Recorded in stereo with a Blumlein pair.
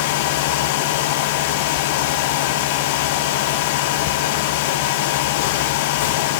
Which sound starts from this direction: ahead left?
A fan, at 0.0 s.